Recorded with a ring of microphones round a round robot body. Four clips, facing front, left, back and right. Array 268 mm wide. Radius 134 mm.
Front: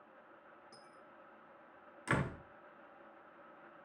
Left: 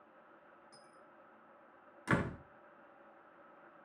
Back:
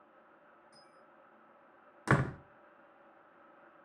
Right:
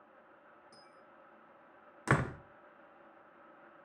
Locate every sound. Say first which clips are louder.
0.7 s a dropped coin: right 1 dB, front 2 dB; 25° right, 5 m
2.1 s a door slam: right 3 dB, back 6 dB; 145° right, 1.1 m